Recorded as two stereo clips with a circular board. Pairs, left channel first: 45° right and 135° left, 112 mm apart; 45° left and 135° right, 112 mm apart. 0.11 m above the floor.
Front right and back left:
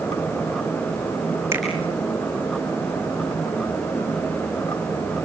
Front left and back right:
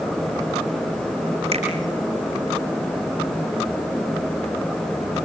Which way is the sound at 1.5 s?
160° right.